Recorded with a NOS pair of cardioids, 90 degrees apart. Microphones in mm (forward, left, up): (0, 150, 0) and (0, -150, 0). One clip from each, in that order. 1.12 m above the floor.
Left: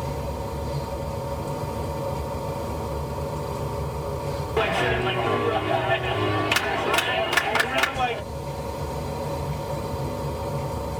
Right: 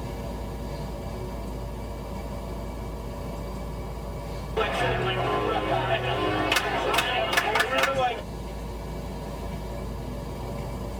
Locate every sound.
0.0 s a machine running: 35° left, 3.5 m
4.6 s a clap: 35° left, 2.5 m